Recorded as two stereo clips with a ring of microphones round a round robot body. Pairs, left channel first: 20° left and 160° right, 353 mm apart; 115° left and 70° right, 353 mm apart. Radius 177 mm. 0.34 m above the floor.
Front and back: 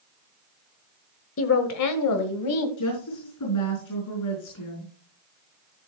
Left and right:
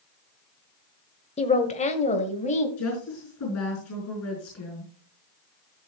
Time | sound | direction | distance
1.4 | a woman speaking | 50° left | 1.3 m
2.8 | a woman speaking | 60° left | 5 m